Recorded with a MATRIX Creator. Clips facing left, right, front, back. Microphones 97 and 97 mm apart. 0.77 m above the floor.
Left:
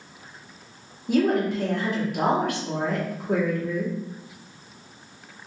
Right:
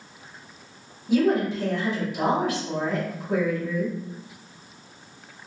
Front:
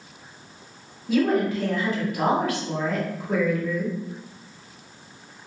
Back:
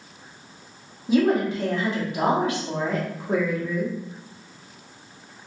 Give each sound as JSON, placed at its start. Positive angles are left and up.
{"t": 1.1, "sound": "a woman speaking", "azimuth_deg": 115, "distance_m": 1.3}